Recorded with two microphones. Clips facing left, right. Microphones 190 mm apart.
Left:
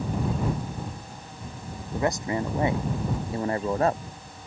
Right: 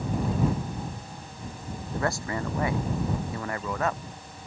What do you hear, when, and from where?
1.9 s a man speaking: 20° left (ahead or behind); by 4.0 s 35° left (ahead or behind)